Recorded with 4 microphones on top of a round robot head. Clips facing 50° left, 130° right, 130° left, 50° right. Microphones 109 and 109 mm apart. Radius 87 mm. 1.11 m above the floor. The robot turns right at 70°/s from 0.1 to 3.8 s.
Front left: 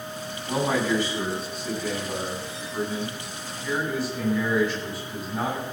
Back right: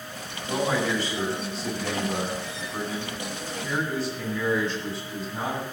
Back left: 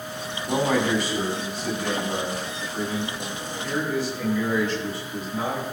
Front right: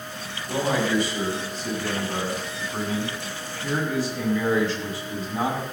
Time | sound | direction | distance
0.5 | a man speaking | 90° left | 8 m